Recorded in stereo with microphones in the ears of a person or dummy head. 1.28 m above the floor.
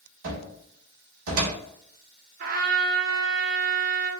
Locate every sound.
0.2 s a cupboard door: 80° right, 1.3 m
2.4 s a trumpet: 45° right (ahead or behind), 0.5 m